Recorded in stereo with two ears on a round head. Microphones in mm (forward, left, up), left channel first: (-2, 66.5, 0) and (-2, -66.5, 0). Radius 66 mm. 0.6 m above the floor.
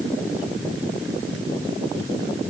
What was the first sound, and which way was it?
Only background noise.